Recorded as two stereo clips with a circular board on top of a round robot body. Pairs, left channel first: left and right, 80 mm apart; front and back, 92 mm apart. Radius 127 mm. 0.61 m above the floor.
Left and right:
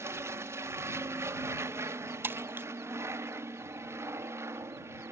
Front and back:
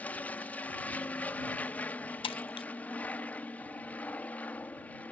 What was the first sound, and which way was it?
An aircraft, 65° right.